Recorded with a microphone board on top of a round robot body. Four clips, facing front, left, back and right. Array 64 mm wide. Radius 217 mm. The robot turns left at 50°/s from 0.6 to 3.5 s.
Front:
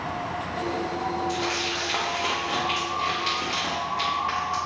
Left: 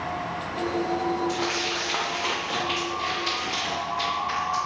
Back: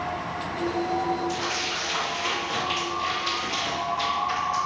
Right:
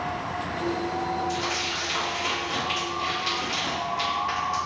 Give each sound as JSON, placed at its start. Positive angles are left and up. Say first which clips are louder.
{"t": 1.3, "sound": "crumpling", "louder": "left 1 dB, front 1 dB", "azimuth_deg": 80, "distance_m": 0.6}